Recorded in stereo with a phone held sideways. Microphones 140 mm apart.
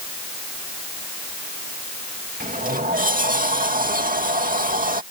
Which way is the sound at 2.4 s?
80° right.